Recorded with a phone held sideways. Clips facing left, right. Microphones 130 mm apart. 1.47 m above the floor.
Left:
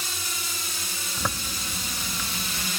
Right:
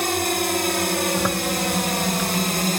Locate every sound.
0.0 s a drone: 65° right (ahead or behind); by 2.8 s 55° right (ahead or behind)
1.2 s a zipper: 10° right (ahead or behind)